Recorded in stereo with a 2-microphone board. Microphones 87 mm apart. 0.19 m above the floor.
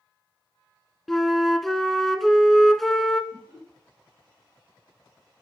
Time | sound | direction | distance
1.1 | a flute | centre (ahead or behind) | 0.6 m
3.3 | laughter | 10° right (ahead or behind) | 4 m